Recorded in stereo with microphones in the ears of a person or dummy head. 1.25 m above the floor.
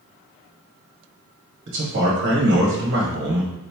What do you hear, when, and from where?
1.7 s a man speaking: 55° right (ahead or behind), 1.0 m